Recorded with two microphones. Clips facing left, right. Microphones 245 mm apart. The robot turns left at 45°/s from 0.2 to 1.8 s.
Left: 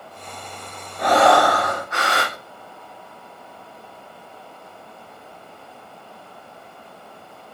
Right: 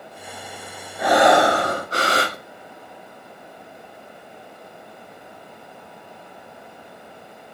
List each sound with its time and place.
1.0 s breathing: 5° right, 1.7 m; by 2.4 s 45° right, 1.7 m